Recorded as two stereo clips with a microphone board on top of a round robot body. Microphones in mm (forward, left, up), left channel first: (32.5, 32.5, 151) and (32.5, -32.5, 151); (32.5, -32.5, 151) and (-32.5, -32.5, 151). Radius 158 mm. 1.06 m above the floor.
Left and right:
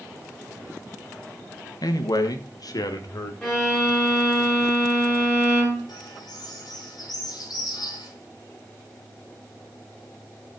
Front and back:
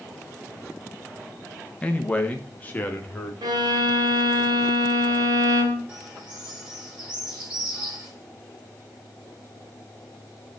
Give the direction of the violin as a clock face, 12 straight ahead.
6 o'clock.